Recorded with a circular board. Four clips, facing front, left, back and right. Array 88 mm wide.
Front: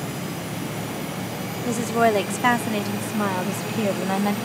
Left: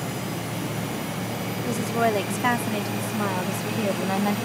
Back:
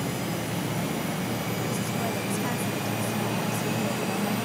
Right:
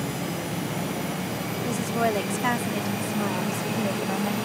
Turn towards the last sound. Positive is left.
turn(degrees=30)